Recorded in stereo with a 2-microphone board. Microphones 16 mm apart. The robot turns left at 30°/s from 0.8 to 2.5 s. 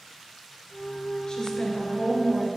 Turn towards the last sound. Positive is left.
turn(degrees=35)